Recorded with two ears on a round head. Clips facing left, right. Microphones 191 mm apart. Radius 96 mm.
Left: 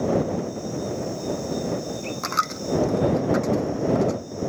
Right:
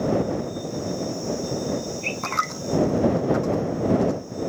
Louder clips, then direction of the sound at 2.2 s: Even; 30° left (ahead or behind).